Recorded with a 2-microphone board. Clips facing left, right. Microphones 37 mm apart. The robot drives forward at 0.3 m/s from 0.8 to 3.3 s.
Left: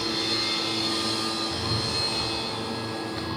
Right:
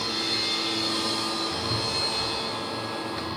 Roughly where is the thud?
Right.